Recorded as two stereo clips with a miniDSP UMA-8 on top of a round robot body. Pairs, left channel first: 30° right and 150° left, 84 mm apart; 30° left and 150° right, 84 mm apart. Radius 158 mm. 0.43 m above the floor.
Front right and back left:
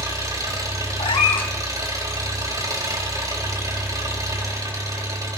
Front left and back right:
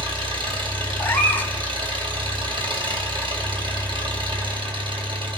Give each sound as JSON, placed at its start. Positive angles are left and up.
{"t": 0.0, "sound": "an engine running", "azimuth_deg": -160, "distance_m": 3.5}
{"t": 1.0, "sound": "a cat meowing", "azimuth_deg": -40, "distance_m": 1.4}